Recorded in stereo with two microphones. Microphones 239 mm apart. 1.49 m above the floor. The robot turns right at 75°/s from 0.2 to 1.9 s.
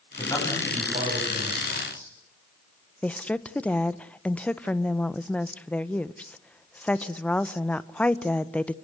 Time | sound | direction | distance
0.2 | a man speaking | 155° left | 10 m
3.0 | a woman speaking | 5° left (ahead or behind) | 0.9 m